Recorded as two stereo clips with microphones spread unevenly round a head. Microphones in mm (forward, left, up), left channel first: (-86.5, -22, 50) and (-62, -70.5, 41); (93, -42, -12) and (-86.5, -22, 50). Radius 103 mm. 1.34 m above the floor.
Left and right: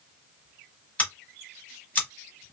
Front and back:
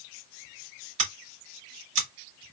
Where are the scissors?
160° left, 1.2 m.